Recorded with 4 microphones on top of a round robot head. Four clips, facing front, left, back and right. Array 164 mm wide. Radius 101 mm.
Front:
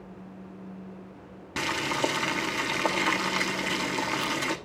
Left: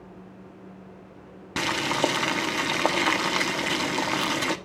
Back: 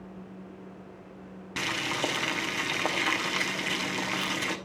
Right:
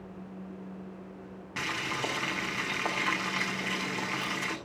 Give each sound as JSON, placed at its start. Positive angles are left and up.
{"t": 1.6, "sound": "boiling", "azimuth_deg": 90, "distance_m": 1.1}